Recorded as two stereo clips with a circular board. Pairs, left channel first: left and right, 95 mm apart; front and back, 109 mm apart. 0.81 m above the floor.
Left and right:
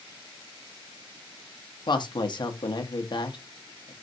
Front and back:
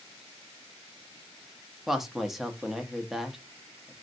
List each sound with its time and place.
1.9 s a woman speaking: 95° left, 0.8 m